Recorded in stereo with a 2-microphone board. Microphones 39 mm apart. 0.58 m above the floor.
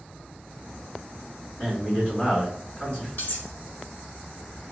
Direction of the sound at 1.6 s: 25° left (ahead or behind).